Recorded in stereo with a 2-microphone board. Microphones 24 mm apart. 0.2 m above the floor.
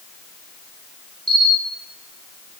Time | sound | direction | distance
1.3 | a camera shutter | 25° left (ahead or behind) | 5 m